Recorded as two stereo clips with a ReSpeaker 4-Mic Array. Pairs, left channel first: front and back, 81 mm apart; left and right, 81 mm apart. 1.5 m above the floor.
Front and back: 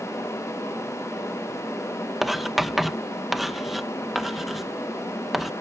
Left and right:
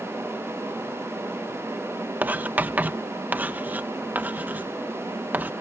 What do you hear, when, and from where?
2.2 s writing: 95° right